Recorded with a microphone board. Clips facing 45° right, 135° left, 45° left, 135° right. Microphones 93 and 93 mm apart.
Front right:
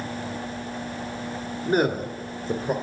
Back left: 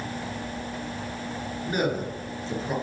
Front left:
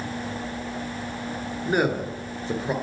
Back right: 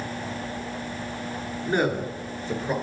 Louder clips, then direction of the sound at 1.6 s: Front right 5 dB, front left 1 dB; 25° right.